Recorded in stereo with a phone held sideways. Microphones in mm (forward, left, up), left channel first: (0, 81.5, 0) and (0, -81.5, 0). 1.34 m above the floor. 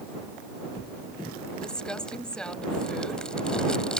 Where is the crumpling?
5° left (ahead or behind).